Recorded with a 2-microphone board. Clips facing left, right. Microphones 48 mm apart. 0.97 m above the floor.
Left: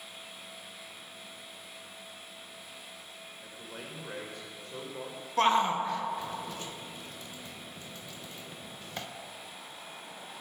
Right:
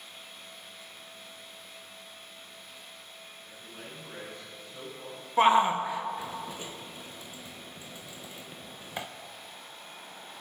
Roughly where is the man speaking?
Left.